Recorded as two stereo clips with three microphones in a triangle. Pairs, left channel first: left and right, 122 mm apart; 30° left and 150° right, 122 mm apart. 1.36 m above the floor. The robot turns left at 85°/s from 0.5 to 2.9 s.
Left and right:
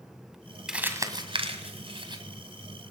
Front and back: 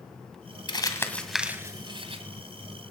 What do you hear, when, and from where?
0.7 s crumpling: 5° right, 1.9 m; by 2.2 s 140° right, 1.9 m